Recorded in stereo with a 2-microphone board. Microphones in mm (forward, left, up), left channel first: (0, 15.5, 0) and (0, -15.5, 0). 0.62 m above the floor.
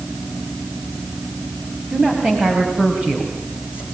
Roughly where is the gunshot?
No gunshot in this recording.